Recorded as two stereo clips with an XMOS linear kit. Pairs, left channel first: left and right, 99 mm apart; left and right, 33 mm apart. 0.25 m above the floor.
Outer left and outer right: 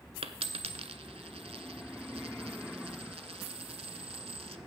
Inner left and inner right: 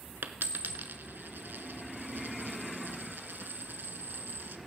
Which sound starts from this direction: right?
A dropped coin, at 0.2 s.